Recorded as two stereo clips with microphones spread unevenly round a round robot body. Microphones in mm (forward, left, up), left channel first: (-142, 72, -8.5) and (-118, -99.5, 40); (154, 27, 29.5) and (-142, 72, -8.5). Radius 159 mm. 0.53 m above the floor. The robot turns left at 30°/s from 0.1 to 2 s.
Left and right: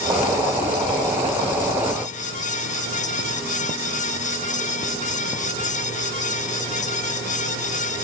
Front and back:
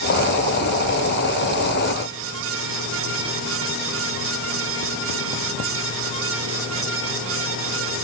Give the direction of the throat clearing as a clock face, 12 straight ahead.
No throat clearing in this recording.